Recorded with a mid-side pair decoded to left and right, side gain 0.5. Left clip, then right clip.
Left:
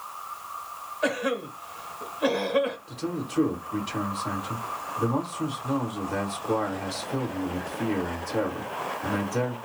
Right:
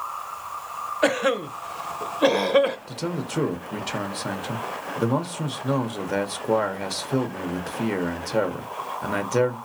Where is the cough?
50° right, 0.7 m.